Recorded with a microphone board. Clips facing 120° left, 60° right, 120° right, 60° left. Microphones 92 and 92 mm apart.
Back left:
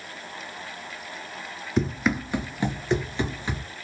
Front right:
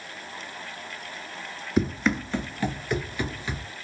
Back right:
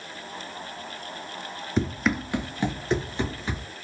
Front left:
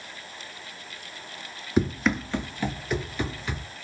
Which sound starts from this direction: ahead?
Running footsteps, at 1.8 s.